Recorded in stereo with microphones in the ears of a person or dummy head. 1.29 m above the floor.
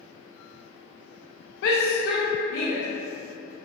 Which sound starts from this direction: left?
A shout, at 1.6 s.